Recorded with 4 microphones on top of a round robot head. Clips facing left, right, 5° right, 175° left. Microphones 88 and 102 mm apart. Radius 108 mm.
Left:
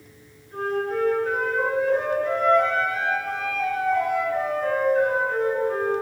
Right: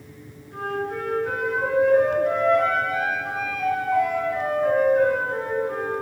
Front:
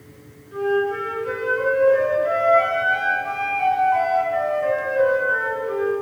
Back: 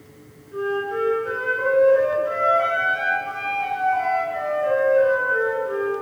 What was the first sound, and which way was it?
A flute, 15° right.